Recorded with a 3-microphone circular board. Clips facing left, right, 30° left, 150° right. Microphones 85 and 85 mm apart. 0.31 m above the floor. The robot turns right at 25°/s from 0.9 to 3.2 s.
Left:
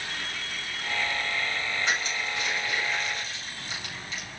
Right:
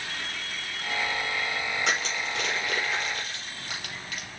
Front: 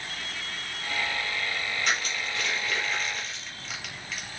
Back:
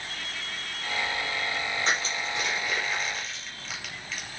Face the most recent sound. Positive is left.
turn(degrees=-55)